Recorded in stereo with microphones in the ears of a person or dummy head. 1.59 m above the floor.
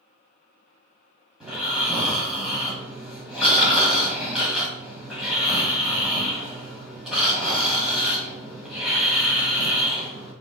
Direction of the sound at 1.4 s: 5° left (ahead or behind).